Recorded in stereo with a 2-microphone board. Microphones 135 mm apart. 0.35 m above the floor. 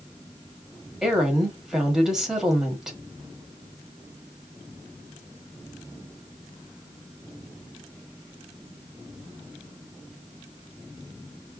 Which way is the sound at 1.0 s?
5° right (ahead or behind).